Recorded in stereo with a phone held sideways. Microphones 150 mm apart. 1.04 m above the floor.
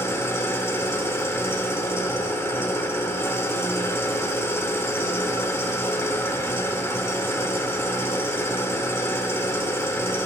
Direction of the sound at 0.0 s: 15° left (ahead or behind).